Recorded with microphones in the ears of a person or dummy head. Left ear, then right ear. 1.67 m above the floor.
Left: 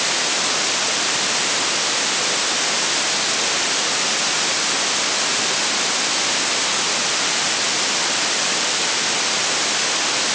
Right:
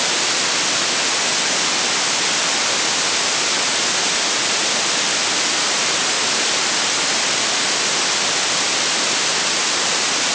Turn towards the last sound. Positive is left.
No sound to turn to.